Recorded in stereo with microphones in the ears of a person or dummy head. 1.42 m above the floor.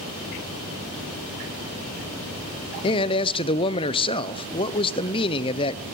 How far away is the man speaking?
About 0.6 m.